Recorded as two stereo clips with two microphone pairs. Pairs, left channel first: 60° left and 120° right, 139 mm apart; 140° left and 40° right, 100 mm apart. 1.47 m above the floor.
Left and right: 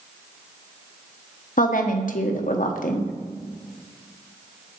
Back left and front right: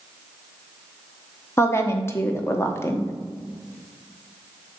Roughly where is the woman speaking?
Left.